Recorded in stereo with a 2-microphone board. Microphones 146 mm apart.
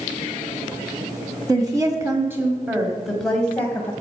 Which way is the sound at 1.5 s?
30° right (ahead or behind).